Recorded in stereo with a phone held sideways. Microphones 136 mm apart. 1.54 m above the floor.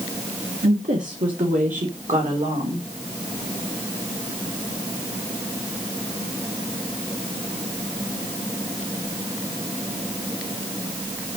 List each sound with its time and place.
0.6 s a woman speaking: 85° right, 1.4 m; by 2.9 s 65° right (ahead or behind), 2.5 m